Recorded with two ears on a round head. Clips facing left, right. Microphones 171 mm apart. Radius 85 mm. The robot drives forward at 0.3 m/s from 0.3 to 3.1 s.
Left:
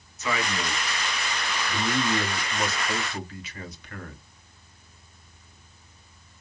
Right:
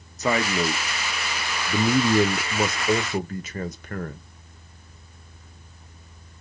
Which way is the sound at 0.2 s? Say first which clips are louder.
Right 6 dB; 35° right (ahead or behind).